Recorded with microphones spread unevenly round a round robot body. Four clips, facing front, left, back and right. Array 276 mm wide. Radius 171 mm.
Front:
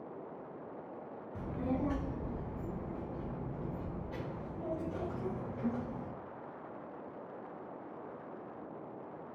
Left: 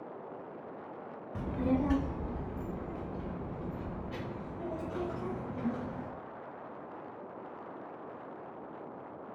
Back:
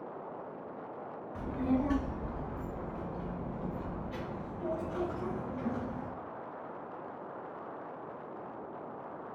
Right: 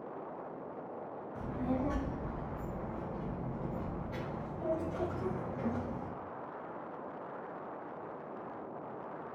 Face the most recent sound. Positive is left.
turn(degrees=25)